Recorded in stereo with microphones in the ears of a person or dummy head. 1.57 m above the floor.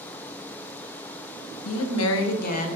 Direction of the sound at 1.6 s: 75° left (ahead or behind).